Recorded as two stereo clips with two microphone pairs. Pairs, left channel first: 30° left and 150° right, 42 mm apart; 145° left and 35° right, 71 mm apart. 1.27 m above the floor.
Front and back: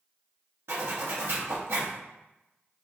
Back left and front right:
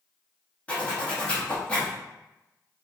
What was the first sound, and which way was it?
A zipper, 145° right.